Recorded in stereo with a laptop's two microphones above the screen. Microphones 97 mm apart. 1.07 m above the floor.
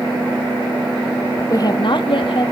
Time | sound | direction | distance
1.5 | a woman speaking | 30° left (ahead or behind) | 0.6 m